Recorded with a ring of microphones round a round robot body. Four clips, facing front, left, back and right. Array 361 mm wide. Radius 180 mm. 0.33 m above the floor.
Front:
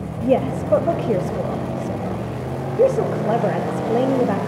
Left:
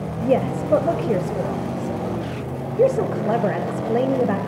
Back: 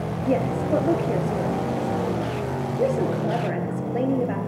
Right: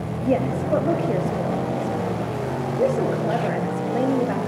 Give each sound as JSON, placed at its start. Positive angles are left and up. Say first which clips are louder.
{"t": 0.2, "sound": "a woman speaking", "louder": "left 2 dB, front 5 dB", "azimuth_deg": 40, "distance_m": 1.9}